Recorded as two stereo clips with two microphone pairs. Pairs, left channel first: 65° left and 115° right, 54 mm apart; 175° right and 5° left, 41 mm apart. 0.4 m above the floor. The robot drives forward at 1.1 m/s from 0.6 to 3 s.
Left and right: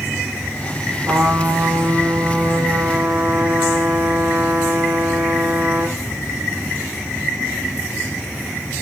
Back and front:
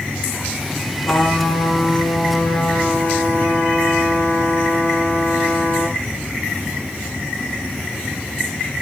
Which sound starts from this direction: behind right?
A trumpet, at 1.1 s.